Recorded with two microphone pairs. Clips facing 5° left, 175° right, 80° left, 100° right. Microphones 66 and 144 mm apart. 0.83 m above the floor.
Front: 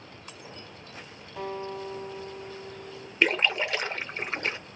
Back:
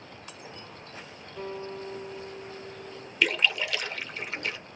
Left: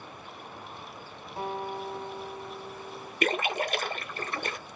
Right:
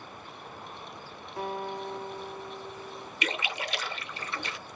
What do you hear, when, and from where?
1.4 s a guitar: 20° left, 1.4 m
3.2 s a splash: 55° left, 0.7 m